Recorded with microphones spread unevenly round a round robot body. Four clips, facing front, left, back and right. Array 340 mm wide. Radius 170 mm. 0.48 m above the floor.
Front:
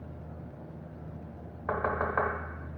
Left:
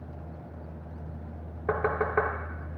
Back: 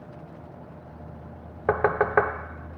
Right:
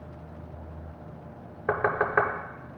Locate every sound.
1.7 s knocking: 175° right, 0.8 m